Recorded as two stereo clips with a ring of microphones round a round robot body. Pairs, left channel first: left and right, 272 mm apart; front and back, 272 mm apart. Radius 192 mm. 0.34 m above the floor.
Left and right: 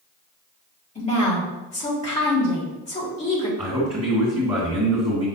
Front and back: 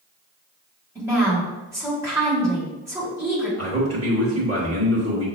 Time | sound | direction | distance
0.9 | a woman speaking | 110° left | 1.5 m
3.6 | a man speaking | 160° right | 1.9 m